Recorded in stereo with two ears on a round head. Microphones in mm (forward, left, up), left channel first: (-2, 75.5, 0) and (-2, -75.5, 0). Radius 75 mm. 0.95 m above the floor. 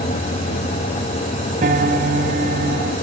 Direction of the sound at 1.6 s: 50° right (ahead or behind).